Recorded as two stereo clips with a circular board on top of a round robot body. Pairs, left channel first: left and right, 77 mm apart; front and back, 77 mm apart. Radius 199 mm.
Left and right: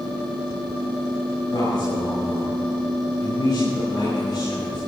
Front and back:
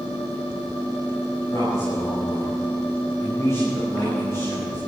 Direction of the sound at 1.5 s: 55° left.